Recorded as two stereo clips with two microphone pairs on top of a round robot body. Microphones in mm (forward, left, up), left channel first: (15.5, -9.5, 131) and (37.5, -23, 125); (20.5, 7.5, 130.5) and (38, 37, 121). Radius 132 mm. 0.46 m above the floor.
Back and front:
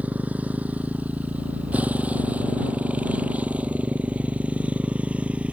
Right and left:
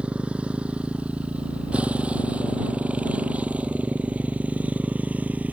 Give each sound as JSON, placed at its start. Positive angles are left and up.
{"t": 0.0, "sound": "a motorcycle", "azimuth_deg": 0}